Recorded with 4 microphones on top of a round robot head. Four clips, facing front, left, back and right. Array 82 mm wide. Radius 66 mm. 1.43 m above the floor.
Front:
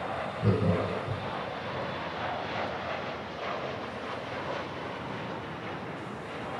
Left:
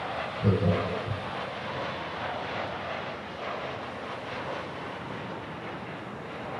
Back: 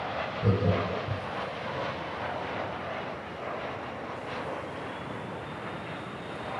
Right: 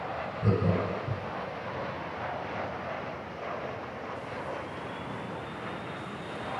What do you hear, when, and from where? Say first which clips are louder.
0.4 s laughter: left 2 dB, even; 95° left, 2.0 m